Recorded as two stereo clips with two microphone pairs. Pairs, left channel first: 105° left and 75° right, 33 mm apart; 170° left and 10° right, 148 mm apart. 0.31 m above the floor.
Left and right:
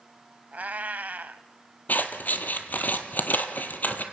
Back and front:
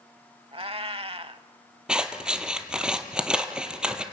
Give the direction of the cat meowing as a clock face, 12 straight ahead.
2 o'clock.